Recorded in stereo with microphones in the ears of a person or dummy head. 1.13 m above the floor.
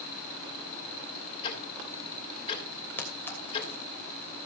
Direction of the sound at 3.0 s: 15° left (ahead or behind).